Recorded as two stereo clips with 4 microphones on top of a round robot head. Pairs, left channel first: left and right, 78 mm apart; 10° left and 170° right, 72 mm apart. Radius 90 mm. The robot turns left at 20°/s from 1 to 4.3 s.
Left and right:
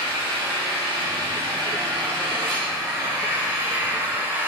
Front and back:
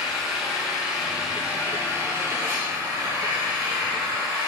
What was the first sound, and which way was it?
An engine running, 85° right.